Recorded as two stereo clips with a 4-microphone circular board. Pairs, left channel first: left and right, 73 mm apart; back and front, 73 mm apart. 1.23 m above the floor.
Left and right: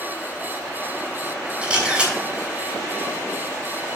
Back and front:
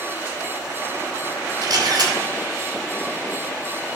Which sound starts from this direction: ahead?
A camera shutter, at 1.6 s.